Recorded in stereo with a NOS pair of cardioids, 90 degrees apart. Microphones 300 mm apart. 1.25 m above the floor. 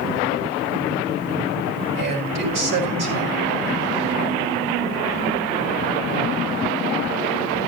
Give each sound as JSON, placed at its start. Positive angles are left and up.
{"t": 1.9, "sound": "a man speaking", "azimuth_deg": -55, "distance_m": 6.0}